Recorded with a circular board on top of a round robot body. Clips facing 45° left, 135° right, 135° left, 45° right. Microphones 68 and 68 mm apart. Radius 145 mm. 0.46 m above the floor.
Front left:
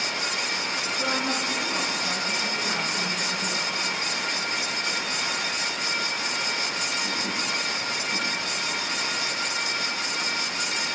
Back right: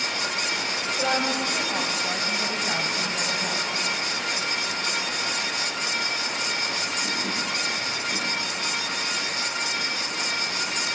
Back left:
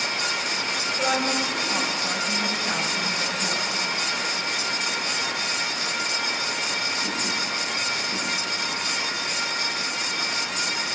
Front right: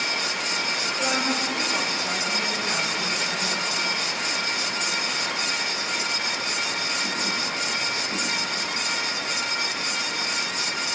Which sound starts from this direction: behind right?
A woman speaking, at 1.0 s.